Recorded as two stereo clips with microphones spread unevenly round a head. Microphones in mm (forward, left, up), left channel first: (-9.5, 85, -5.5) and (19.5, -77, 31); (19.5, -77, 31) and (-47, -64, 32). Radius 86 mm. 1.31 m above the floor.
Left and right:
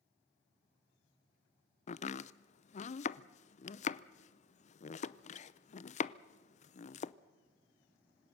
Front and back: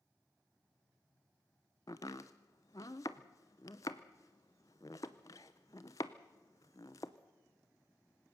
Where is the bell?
I don't hear a bell.